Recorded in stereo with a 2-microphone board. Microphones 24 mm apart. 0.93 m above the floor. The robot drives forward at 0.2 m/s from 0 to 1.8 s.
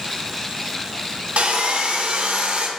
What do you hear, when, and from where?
1.4 s sawing: 70° right (ahead or behind), 0.6 m